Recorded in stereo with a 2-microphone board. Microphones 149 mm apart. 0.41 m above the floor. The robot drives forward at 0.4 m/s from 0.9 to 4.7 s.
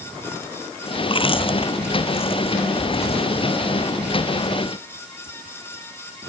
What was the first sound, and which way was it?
Chewing, 35° left (ahead or behind).